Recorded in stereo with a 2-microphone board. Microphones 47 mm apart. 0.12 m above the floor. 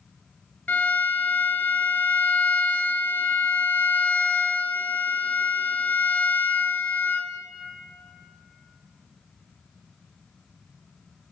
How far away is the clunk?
No clunk in this recording.